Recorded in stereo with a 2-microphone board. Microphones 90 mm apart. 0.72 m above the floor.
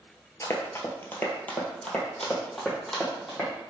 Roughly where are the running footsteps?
Left.